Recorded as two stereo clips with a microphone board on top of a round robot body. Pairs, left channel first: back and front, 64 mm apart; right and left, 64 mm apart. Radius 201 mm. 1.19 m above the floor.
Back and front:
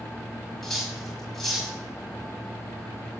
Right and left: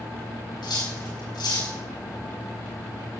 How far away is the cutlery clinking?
About 5.5 m.